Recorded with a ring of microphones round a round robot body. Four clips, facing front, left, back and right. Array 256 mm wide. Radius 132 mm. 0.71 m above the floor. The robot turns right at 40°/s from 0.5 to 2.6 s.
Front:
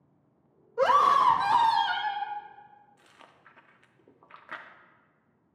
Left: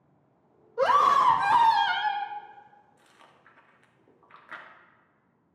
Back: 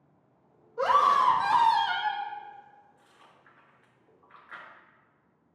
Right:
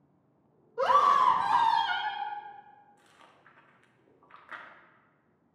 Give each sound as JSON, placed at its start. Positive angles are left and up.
{"t": 0.8, "sound": "a scream", "azimuth_deg": 35, "distance_m": 0.6}
{"t": 3.0, "sound": "chewing", "azimuth_deg": 5, "distance_m": 0.8}